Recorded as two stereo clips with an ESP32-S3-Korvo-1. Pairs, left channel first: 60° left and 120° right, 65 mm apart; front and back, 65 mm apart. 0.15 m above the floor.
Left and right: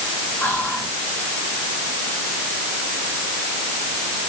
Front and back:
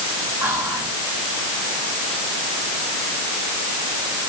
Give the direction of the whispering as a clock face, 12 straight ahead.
8 o'clock.